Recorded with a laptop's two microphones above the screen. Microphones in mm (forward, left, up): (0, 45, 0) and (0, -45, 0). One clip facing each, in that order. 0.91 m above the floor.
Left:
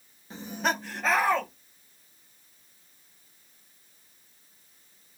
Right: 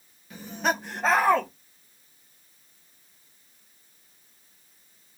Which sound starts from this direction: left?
Laughter, at 0.3 s.